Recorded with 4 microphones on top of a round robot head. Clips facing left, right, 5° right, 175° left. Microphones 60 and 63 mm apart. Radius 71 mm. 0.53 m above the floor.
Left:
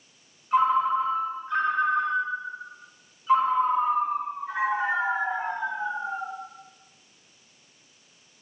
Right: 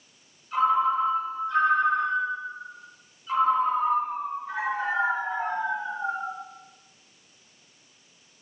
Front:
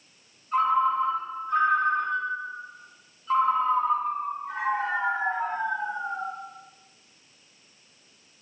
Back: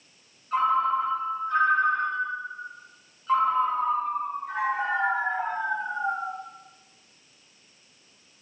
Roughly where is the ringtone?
Behind left.